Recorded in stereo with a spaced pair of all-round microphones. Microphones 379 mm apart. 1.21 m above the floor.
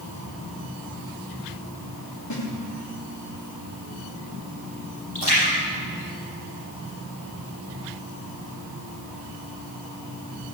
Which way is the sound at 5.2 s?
80° left.